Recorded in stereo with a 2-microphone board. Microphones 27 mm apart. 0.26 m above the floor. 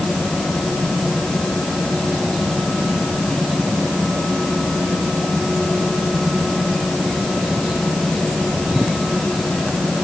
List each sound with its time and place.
Only background noise.